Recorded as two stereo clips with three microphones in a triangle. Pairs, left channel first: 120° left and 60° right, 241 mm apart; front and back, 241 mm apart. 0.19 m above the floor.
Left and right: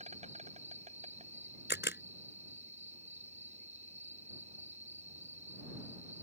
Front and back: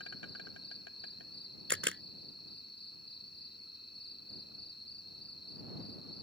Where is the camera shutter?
155° left.